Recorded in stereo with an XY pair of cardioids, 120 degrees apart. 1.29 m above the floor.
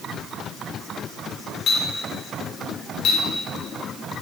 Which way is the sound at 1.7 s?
60° left.